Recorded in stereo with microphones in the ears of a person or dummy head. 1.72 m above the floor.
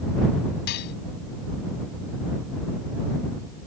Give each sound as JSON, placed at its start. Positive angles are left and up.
{"t": 0.7, "sound": "dishes clattering", "side_deg": 60}